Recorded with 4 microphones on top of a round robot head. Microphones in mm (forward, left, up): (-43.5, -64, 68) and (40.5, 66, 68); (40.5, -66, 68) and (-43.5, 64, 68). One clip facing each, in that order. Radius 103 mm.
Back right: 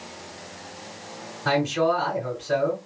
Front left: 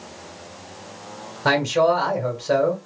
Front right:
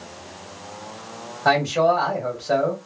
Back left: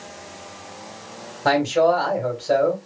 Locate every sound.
1.4 s a man speaking: 60° left, 2.0 m